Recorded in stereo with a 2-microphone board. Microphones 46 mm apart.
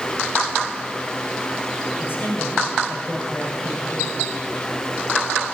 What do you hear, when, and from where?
2.0 s a man speaking: 50° left (ahead or behind), 9 m